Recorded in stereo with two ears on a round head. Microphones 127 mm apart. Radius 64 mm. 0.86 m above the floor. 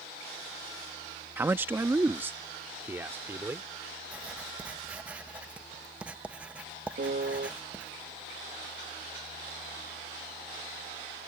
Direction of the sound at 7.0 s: 65° right (ahead or behind).